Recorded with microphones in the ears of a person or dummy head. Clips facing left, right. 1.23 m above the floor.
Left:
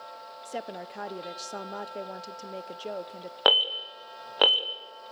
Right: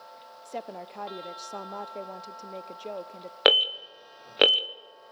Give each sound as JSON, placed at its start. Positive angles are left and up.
{"t": 0.5, "sound": "a woman speaking", "side_deg": 10, "distance_m": 0.5}
{"t": 3.5, "sound": "an alarm", "side_deg": -20, "distance_m": 0.9}